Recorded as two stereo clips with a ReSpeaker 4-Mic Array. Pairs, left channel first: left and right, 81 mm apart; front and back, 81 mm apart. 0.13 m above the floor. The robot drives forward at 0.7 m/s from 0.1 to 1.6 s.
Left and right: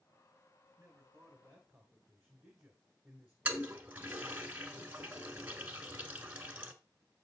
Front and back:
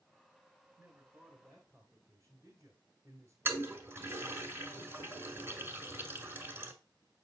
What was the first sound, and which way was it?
A man speaking, 140° right.